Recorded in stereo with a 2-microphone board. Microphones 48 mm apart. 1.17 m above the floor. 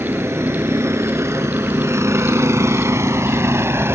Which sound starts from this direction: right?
A vehicle, at 0.0 s.